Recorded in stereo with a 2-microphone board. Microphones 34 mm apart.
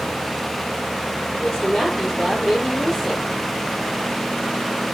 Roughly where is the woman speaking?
Left.